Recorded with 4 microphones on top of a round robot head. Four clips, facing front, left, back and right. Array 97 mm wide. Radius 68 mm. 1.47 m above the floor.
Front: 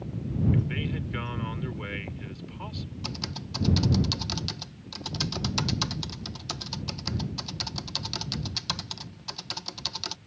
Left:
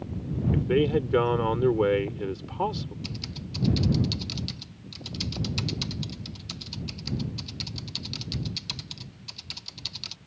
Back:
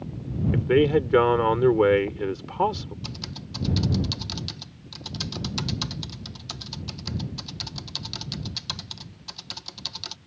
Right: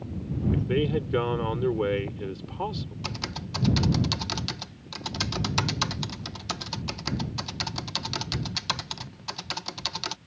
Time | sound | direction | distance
0.5 | a man speaking | 170° left | ?
3.0 | typing on a keyboard | 80° right | ?